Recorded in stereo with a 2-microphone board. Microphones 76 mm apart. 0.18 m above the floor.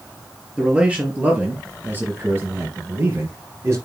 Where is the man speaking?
15° right (ahead or behind), 3 m; by 3.8 s 35° right (ahead or behind), 4 m.